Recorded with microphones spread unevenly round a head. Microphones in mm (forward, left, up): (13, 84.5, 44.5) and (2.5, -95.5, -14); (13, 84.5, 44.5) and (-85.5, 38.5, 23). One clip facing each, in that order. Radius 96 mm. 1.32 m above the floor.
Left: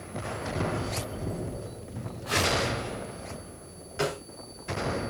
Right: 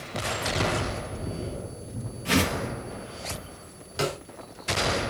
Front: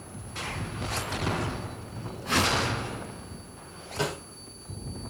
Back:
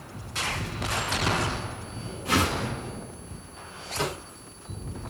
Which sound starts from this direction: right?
A whoosh, at 2.2 s.